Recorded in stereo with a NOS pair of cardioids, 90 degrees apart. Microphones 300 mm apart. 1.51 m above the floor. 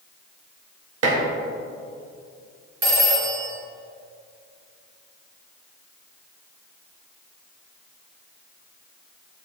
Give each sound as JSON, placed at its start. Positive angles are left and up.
{"t": 1.0, "sound": "dishes clattering", "azimuth_deg": -55, "distance_m": 1.9}
{"t": 2.8, "sound": "a phone ringing", "azimuth_deg": -45, "distance_m": 1.5}